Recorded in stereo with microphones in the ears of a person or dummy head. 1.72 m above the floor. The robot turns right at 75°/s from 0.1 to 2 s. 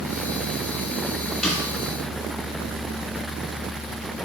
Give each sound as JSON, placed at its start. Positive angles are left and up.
{"t": 1.4, "sound": "a snare drum", "side_deg": 5, "distance_m": 1.2}